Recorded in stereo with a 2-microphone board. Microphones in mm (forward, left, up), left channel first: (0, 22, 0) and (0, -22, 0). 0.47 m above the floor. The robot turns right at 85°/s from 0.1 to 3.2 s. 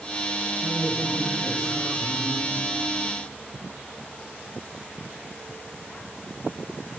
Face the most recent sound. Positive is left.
turn(degrees=-170)